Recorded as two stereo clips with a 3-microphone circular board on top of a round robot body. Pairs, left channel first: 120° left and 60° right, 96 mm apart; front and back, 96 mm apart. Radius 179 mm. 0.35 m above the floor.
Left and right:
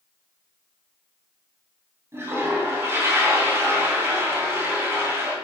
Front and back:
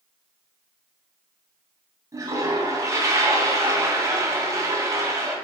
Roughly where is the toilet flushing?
Behind right.